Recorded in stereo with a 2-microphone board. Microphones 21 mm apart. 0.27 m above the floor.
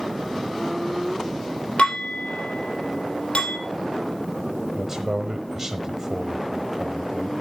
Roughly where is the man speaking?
Right.